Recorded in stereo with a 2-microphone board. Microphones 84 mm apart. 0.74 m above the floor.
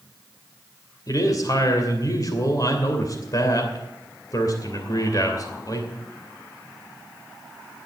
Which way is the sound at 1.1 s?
45° left (ahead or behind).